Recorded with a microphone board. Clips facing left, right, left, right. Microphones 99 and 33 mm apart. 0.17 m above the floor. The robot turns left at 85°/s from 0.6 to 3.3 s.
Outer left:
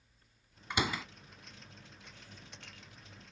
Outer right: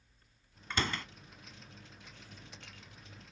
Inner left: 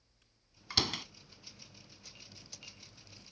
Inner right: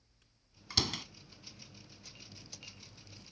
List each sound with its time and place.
0.7 s a door slam: 15° left (ahead or behind); by 1.1 s 5° left (ahead or behind)